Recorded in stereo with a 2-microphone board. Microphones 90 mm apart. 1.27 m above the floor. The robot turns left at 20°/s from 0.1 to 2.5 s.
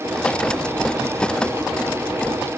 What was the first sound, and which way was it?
Only background noise.